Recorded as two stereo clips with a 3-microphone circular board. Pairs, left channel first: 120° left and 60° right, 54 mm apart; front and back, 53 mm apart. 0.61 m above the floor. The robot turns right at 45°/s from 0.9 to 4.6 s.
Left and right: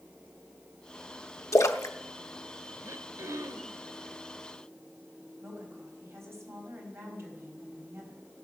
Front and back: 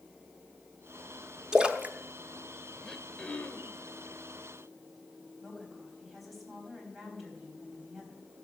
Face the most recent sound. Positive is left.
turn(degrees=-90)